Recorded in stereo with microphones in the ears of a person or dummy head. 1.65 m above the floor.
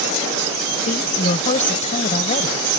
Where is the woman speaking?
40° left (ahead or behind).